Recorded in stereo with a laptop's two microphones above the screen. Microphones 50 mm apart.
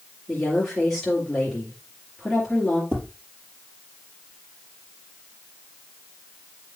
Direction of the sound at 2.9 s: 50° right (ahead or behind).